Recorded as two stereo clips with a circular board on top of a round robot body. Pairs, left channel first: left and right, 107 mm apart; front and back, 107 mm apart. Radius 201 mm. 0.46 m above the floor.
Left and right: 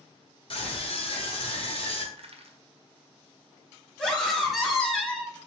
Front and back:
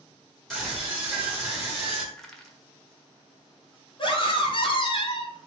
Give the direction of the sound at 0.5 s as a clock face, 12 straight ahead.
9 o'clock.